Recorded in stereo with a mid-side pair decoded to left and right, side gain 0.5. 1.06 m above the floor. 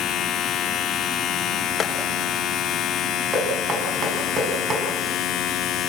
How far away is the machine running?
About 1.4 m.